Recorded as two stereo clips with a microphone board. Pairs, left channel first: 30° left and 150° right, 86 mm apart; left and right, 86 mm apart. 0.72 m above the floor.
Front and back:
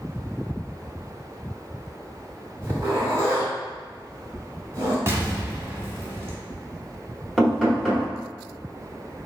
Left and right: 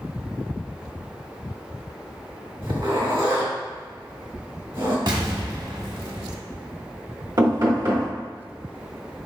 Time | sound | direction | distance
2.6 | a zipper | 95° right | 1.9 m
5.1 | an explosion | 95° right | 0.9 m
7.4 | knocking | 65° right | 1.7 m